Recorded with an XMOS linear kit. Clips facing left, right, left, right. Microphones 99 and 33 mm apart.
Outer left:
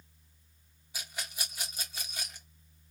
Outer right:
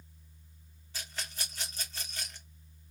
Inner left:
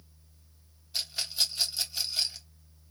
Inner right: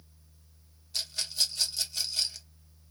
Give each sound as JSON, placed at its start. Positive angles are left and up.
{"t": 0.9, "sound": "a rattle", "side_deg": 10, "distance_m": 0.9}